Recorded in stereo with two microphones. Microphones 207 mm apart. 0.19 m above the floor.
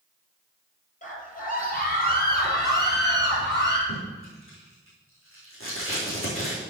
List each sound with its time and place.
1.0 s a scream: 40° left (ahead or behind), 3.5 m; by 3.8 s 55° left (ahead or behind), 4.5 m
3.9 s tape being pulled: 85° left, 5 m